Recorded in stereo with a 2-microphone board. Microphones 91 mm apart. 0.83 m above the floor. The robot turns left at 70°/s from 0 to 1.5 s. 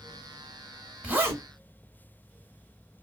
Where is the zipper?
15° right (ahead or behind), 0.9 m; by 1.4 s 35° right (ahead or behind), 0.9 m.